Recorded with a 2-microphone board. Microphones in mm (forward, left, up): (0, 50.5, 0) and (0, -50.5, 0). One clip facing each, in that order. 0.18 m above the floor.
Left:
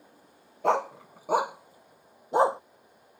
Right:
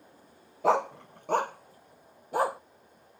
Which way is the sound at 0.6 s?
Centre (ahead or behind).